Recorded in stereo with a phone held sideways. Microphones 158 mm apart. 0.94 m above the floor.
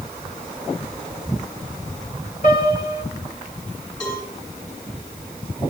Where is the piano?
50° left (ahead or behind), 2.5 m.